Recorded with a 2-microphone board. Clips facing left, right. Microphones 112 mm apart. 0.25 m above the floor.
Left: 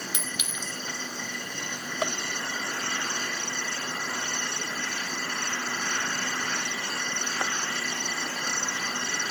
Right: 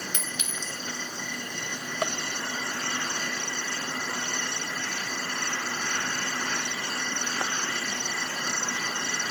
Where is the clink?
10° left (ahead or behind), 0.5 m.